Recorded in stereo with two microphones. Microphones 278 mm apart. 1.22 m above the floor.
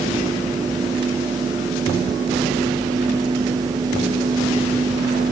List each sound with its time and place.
Only background noise.